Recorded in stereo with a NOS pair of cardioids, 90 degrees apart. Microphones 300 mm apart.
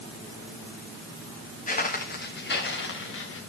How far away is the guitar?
No guitar in this recording.